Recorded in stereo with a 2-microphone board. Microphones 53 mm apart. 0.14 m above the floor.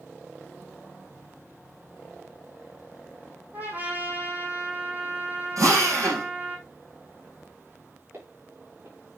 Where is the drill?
80° right, 5.5 m.